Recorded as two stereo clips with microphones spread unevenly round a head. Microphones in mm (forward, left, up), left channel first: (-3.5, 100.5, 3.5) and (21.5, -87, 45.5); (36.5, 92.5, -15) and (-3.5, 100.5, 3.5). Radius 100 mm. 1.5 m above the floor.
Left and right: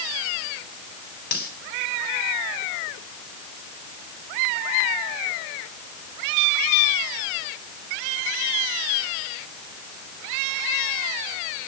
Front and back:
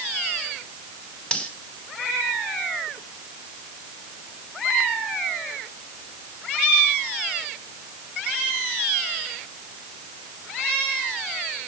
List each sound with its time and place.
1.3 s cutlery clinking: 55° left, 7 m